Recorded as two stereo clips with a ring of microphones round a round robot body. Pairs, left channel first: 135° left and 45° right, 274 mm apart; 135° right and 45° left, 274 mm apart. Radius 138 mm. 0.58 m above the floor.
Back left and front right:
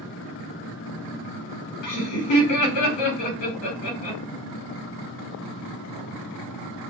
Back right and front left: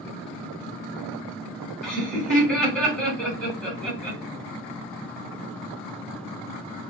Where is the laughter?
140° left, 1.6 m.